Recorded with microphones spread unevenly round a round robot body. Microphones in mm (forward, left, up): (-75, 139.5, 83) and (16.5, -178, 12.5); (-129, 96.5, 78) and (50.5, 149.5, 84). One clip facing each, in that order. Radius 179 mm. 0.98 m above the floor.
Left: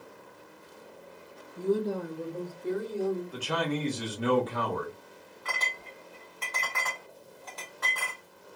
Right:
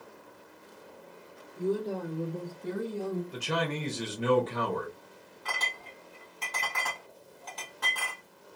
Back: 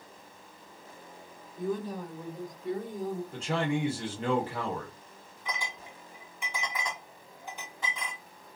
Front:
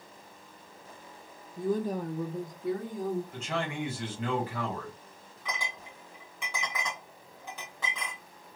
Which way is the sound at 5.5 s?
20° right.